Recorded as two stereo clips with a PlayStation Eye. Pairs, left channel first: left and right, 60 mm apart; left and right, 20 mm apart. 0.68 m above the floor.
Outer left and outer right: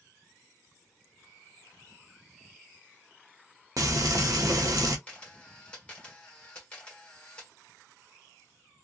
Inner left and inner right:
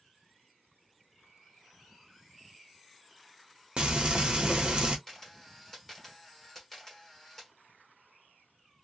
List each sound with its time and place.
3.8 s frying: 65° right (ahead or behind), 0.8 m
5.1 s a camera shutter: 20° left (ahead or behind), 1.2 m